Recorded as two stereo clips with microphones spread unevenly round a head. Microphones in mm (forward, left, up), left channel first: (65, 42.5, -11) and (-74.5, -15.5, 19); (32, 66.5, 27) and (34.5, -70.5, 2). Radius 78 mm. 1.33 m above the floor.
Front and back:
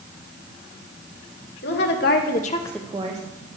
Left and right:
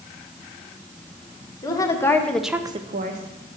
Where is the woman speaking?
25° left, 1.8 m; by 3.2 s 105° right, 0.9 m.